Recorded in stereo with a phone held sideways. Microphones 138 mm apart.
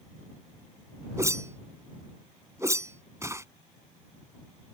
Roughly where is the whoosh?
Right.